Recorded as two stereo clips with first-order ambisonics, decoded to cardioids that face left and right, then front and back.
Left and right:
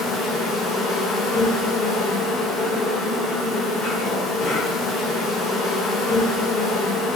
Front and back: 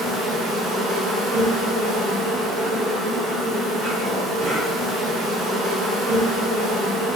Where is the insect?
120° left, 1.1 m.